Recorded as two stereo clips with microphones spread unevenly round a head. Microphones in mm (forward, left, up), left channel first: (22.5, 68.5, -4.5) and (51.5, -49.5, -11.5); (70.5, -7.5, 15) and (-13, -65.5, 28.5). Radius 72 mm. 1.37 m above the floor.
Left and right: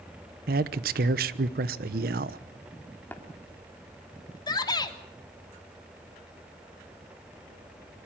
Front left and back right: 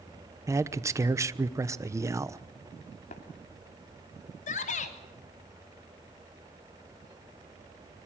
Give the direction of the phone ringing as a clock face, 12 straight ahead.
No phone ringing in this recording.